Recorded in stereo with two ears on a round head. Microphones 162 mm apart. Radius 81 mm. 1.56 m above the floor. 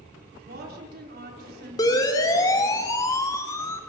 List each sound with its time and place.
0.5 s a woman speaking: 60° right (ahead or behind), 4.5 m
1.8 s a siren: 20° left (ahead or behind), 3.5 m; by 3.8 s 15° left (ahead or behind), 2.5 m